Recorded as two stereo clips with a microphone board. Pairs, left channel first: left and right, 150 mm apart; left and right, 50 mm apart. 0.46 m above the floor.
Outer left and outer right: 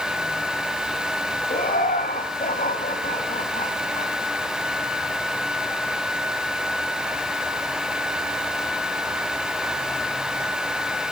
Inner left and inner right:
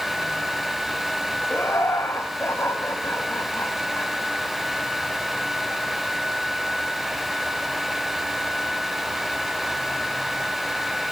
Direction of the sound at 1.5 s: 75° left (ahead or behind).